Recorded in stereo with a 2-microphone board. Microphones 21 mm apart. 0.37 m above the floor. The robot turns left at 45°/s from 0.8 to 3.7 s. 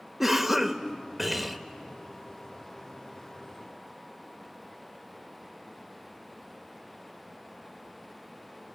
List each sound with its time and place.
0.2 s a cough: 160° right, 1.0 m; by 1.6 s 165° left, 1.0 m